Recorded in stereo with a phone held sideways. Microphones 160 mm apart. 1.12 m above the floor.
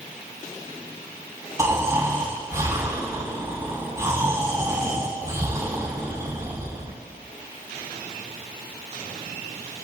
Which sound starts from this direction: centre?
Snoring, at 1.6 s.